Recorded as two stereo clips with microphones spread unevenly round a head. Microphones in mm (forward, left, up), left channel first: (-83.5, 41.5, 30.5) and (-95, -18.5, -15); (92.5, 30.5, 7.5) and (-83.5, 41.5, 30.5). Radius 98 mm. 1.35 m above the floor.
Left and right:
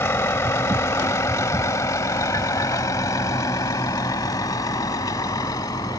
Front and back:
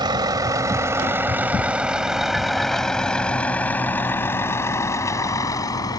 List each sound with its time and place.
0.0 s a vehicle: 110° left; by 6.0 s 65° left